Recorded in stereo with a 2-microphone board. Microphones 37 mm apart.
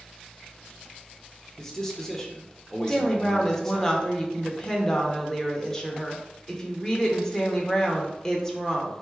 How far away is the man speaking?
About 0.8 m.